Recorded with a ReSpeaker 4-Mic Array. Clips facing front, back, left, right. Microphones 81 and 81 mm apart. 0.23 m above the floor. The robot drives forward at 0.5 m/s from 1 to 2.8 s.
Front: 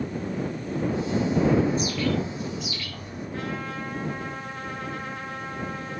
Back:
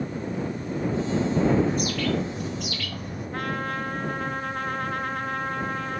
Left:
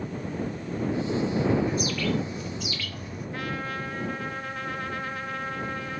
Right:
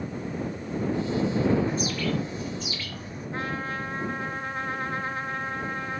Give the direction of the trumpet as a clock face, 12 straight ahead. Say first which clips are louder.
Back 3 dB, right 2 dB; 5 o'clock.